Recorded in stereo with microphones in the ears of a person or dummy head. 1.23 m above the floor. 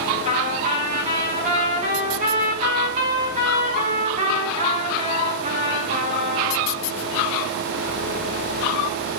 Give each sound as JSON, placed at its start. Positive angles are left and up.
{"t": 0.2, "sound": "a trumpet", "side_deg": -40, "distance_m": 3.5}